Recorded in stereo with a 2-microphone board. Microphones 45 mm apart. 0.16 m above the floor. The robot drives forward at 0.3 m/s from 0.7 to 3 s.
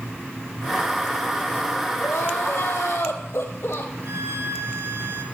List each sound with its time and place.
2.0 s crying: 75° left (ahead or behind), 2.5 m
4.0 s a violin: 65° right (ahead or behind), 2 m